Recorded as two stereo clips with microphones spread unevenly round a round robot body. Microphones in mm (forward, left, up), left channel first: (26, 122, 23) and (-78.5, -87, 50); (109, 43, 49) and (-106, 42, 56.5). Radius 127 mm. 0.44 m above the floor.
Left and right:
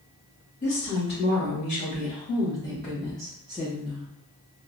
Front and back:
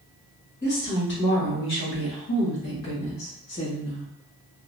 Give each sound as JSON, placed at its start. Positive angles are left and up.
{"t": 0.6, "sound": "a woman speaking", "azimuth_deg": 35, "distance_m": 1.7}